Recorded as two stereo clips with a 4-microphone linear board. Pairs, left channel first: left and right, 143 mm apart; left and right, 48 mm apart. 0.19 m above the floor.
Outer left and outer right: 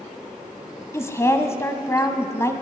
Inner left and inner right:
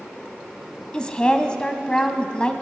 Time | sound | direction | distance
0.9 | a woman speaking | 20° left (ahead or behind) | 1.0 m